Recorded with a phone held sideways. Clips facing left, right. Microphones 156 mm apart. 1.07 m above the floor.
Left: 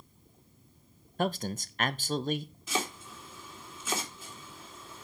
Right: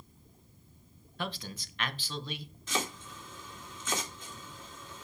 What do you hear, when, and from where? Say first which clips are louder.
1.2 s a man speaking: left 8 dB; 45° left (ahead or behind), 0.7 m
2.7 s chopping: left 1 dB; 5° left (ahead or behind), 2.5 m